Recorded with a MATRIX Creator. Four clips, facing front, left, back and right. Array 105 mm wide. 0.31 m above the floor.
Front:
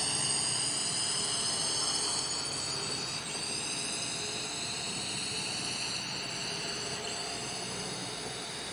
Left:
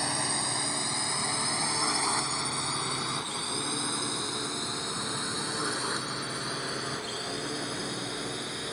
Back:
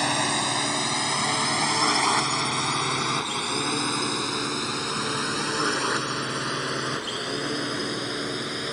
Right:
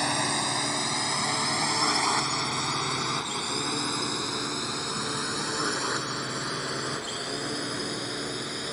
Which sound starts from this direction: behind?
A drone, at 0.0 s.